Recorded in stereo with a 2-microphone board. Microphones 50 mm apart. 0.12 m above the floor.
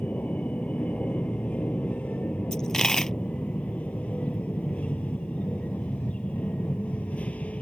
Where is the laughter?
No laughter in this recording.